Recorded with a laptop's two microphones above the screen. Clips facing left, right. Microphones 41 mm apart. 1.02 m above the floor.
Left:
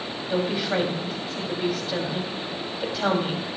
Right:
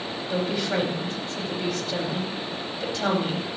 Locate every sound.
0.3 s a woman speaking: 10° left (ahead or behind), 5 m